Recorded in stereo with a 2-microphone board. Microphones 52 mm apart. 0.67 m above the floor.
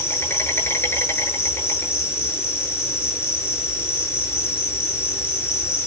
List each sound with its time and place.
0.0 s an insect: 50° left (ahead or behind), 10 m